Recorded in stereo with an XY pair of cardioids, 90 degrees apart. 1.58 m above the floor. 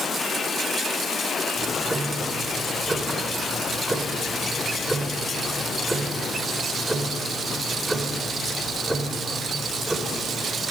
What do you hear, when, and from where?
1.6 s ticking: 10° right, 3.5 m